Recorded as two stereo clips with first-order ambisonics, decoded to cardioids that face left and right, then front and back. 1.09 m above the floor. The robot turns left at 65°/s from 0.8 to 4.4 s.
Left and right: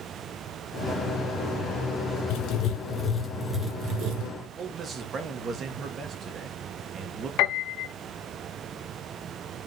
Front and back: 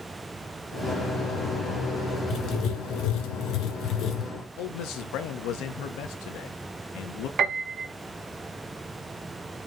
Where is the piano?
125° left, 1.7 m.